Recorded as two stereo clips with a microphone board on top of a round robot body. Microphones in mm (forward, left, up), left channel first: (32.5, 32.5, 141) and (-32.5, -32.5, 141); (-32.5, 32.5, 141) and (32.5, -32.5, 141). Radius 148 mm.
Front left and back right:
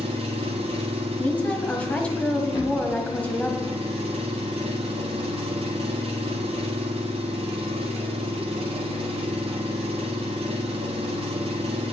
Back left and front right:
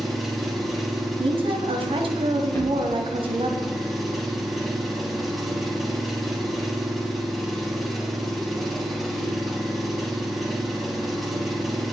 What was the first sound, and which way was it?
An engine running, 135° right.